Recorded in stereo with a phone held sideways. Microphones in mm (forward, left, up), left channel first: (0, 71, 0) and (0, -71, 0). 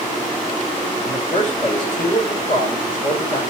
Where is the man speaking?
35° left (ahead or behind), 5 m.